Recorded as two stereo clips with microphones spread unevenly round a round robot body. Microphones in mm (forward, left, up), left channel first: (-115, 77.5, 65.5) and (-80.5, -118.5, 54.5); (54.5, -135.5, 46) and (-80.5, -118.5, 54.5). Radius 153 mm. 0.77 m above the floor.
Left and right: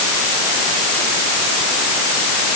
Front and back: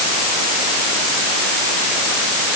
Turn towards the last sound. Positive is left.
No sound to turn to.